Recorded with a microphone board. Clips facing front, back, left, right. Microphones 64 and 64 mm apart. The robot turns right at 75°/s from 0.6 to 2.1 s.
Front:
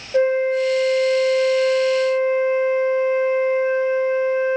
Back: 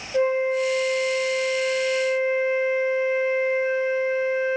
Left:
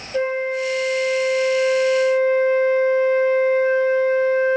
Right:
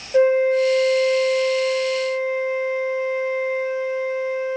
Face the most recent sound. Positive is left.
turn(degrees=75)